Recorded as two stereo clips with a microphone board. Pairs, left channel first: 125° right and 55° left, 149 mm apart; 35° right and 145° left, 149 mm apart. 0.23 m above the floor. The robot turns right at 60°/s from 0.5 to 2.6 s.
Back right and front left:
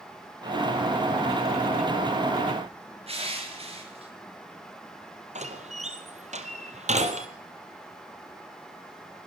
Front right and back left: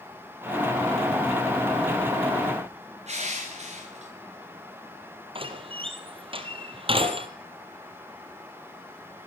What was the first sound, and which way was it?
Crushing, 105° left.